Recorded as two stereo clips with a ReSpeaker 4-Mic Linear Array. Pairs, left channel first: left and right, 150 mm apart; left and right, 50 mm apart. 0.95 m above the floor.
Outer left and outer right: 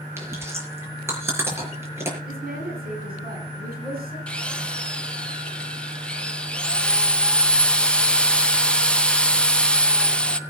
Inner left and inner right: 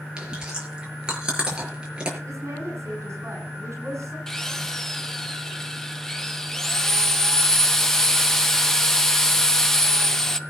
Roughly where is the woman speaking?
Right.